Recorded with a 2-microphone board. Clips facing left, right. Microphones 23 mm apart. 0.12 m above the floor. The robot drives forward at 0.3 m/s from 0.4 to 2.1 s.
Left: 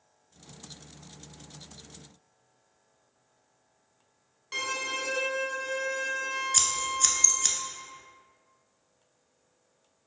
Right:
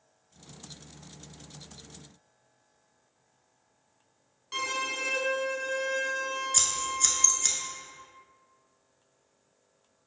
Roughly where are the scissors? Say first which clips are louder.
Left 1 dB; centre.